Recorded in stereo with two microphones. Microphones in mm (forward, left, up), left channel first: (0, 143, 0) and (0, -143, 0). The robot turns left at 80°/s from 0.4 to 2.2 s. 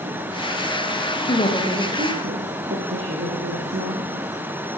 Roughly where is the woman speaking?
Ahead left.